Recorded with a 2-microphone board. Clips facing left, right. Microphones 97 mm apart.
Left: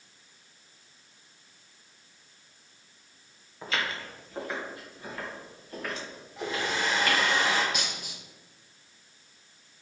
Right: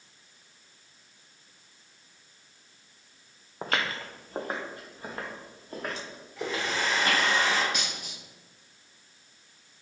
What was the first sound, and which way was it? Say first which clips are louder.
Footsteps: right 2 dB; 60° right (ahead or behind).